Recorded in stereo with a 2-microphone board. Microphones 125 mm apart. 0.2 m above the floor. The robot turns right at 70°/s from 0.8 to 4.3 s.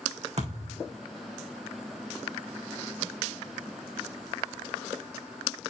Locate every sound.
0.4 s a thud: 60° right (ahead or behind), 3 m; by 0.9 s 50° right (ahead or behind), 3 m